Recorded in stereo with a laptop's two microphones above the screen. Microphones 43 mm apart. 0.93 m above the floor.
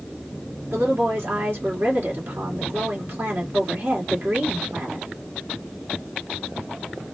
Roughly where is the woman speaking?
Right.